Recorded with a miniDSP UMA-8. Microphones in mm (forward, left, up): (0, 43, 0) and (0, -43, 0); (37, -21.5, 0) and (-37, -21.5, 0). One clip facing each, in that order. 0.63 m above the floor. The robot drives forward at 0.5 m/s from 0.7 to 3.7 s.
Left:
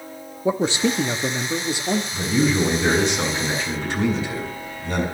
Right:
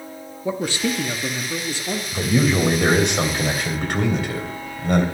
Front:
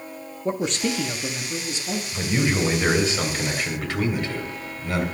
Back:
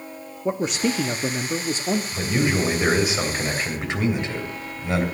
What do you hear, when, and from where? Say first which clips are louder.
0.5 s a man speaking: left 3 dB, back 2 dB; 110° left, 0.6 m; by 2.0 s 165° left, 1.0 m
2.1 s a man speaking: right 3 dB, front 3 dB; 95° right, 3 m; by 5.0 s 115° right, 3 m